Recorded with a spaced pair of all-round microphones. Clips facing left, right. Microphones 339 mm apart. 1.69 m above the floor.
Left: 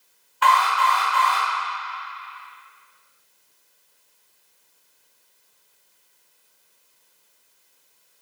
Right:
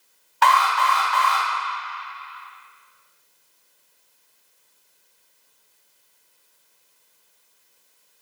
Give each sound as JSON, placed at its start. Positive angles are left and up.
{"t": 0.4, "sound": "an alarm", "side_deg": -70, "distance_m": 1.7}